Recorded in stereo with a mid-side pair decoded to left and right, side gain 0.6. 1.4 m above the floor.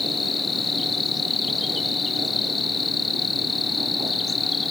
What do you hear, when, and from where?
0.0 s an insect: 25° left